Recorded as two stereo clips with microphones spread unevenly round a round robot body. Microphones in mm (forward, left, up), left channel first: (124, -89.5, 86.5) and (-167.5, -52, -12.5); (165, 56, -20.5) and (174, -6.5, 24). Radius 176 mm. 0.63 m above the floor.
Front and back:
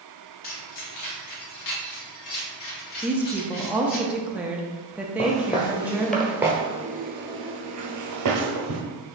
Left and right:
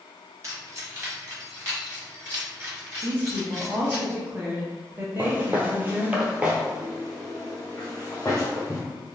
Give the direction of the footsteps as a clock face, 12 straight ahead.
2 o'clock.